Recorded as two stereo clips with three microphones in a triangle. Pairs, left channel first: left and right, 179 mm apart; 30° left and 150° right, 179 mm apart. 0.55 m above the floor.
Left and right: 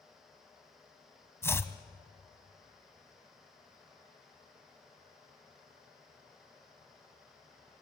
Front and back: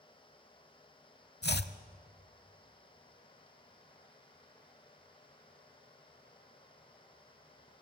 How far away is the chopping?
About 0.8 m.